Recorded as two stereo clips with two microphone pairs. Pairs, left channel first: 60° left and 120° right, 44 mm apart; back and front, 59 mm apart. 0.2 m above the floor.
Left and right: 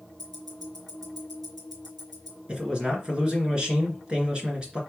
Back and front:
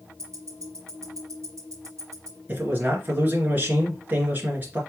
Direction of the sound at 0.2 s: 25° right.